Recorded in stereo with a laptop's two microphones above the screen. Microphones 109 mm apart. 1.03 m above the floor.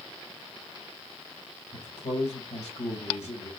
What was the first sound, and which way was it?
A man speaking, 80° left.